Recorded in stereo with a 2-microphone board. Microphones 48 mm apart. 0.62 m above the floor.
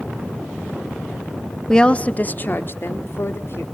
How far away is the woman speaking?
About 0.8 m.